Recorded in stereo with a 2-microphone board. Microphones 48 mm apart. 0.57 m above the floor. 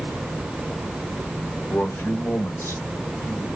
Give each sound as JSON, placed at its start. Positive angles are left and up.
{"t": 1.7, "sound": "a man speaking", "side_deg": 60, "distance_m": 1.7}